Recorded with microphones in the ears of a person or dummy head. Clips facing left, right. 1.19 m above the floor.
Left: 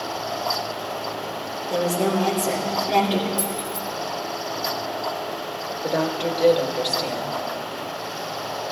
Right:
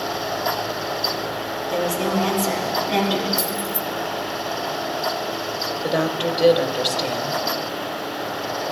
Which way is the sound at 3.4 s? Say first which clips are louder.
Right 2 dB; 10° right (ahead or behind).